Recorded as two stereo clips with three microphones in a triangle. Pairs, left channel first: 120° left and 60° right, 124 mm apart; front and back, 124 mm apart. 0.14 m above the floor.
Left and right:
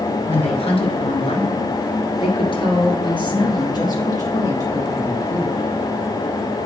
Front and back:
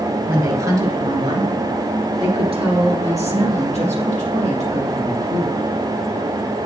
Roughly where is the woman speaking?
Behind left.